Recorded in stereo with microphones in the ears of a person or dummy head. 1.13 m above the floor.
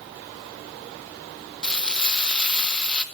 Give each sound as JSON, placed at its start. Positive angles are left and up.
{"t": 1.6, "sound": "frying", "side_deg": 10, "distance_m": 0.9}